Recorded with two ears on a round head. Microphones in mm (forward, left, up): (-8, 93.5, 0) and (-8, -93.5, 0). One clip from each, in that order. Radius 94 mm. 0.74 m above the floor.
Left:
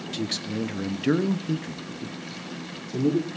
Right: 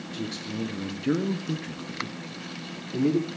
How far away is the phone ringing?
I don't hear a phone ringing.